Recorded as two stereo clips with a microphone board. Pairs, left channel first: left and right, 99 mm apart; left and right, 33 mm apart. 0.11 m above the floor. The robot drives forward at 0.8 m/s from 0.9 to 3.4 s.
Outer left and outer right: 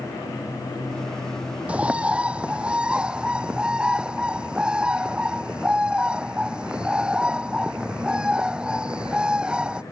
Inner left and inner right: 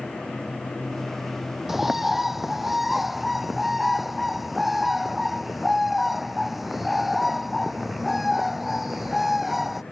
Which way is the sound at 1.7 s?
15° right (ahead or behind).